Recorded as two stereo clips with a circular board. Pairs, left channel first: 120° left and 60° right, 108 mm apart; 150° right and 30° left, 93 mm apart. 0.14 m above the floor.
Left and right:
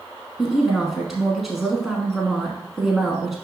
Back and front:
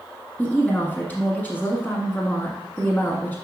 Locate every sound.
0.4 s a woman speaking: 145° right, 1.1 m